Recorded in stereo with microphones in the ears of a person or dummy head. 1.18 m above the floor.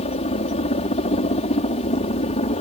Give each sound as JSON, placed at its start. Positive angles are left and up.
{"t": 0.0, "sound": "a helicopter", "side_deg": 30}